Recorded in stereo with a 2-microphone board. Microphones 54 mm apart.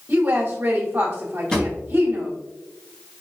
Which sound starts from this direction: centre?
A drawer, at 1.5 s.